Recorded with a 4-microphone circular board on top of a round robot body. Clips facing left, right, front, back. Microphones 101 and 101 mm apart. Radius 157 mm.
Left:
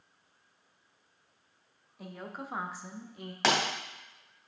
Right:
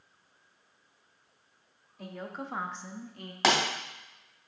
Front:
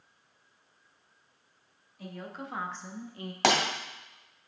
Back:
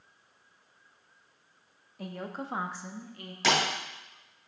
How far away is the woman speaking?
About 1.3 m.